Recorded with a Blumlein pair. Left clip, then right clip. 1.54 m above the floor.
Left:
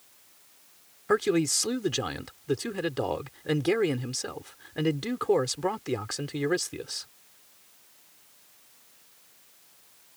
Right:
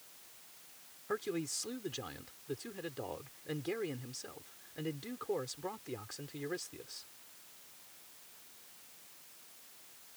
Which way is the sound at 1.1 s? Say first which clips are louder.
Left 13 dB; 35° left.